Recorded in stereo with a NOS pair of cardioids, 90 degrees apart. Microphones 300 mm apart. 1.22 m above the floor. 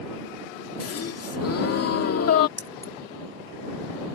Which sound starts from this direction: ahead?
Keys jangling, at 2.6 s.